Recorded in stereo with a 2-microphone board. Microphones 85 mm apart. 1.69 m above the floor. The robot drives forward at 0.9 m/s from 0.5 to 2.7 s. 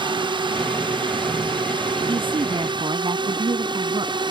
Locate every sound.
0.0 s a drone: 75° right (ahead or behind); by 4.3 s 70° right (ahead or behind)
2.1 s a woman speaking: 75° right (ahead or behind)